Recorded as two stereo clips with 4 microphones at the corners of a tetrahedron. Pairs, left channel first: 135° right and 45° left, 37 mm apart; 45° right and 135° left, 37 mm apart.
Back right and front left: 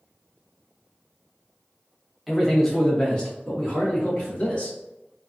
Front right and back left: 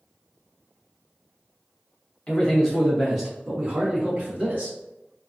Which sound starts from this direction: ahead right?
A man speaking, at 2.3 s.